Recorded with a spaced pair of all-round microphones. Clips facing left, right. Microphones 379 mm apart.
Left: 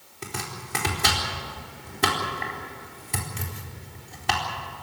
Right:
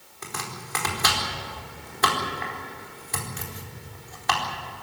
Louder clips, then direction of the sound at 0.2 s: Left 2 dB; 40° left (ahead or behind).